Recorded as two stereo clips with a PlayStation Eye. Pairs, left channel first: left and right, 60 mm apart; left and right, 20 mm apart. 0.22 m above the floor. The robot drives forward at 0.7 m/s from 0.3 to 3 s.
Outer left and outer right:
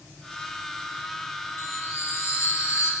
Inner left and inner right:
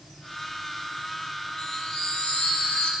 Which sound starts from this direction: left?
A chime, at 1.6 s.